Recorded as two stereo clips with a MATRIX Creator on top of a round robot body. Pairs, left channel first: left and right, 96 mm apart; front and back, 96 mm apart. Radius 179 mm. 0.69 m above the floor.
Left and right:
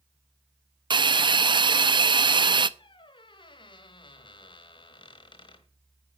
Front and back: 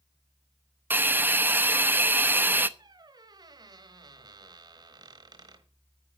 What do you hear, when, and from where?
0.9 s a hiss: 115° right, 0.9 m
2.8 s a squeak: 130° left, 1.2 m